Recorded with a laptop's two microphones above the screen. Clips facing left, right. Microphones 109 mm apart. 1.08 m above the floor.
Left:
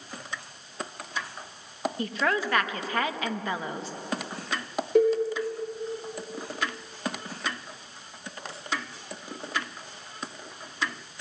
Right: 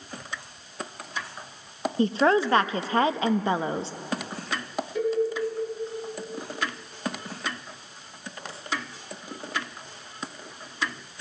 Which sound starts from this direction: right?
A woman speaking, at 2.0 s.